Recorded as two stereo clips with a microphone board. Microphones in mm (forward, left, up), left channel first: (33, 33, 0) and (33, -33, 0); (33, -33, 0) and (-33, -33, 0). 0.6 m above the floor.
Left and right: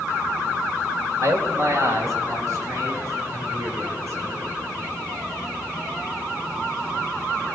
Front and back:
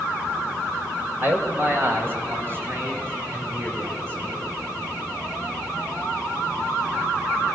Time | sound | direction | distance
1.2 | a man speaking | 120° right | 2.5 m